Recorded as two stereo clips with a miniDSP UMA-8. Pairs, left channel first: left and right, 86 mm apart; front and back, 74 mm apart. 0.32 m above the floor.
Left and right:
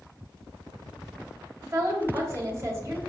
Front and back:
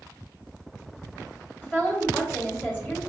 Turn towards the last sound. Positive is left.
turn(degrees=-50)